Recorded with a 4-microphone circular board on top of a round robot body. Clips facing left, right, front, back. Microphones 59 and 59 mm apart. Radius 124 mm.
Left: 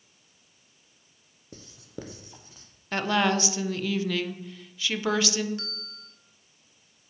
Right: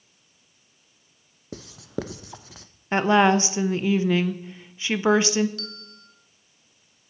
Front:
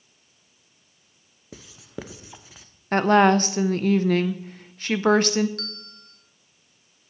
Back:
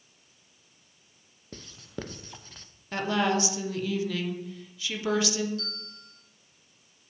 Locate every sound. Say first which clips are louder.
1.5 s writing: right 10 dB, front 2 dB; 85° right, 0.6 m
2.9 s a woman speaking: right 7 dB, front 10 dB; 30° right, 0.8 m
5.6 s a bell: right 1 dB, front 2 dB; 25° left, 2 m